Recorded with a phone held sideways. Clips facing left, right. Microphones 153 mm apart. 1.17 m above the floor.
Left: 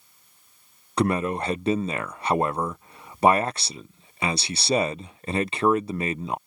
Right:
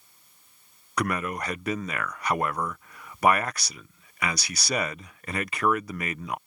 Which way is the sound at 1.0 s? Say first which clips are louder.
Left 5 dB; 25° left (ahead or behind).